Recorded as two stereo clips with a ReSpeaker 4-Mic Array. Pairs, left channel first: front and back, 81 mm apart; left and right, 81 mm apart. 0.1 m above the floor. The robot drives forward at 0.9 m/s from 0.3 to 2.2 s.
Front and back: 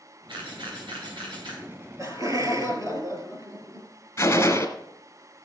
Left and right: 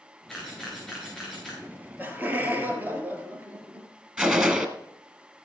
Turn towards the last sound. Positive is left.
turn(degrees=-30)